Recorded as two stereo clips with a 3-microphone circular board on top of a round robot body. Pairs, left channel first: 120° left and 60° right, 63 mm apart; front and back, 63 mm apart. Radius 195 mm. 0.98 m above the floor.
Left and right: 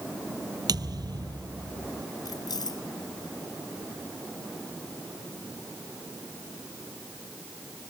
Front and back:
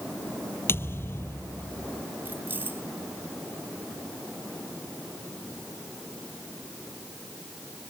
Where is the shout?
I don't hear a shout.